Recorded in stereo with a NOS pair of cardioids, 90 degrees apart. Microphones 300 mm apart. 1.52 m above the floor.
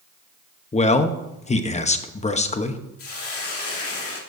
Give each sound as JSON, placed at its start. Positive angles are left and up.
{"t": 0.7, "sound": "a man speaking", "azimuth_deg": 20, "distance_m": 1.0}
{"t": 3.0, "sound": "a hiss", "azimuth_deg": 45, "distance_m": 2.0}